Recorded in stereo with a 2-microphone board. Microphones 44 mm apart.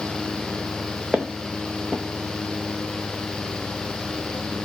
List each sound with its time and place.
1.1 s footsteps: 15° right (ahead or behind), 0.7 m